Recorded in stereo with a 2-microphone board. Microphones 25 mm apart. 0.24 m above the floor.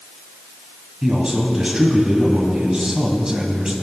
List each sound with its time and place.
1.0 s a man speaking: 30° right (ahead or behind), 1.6 m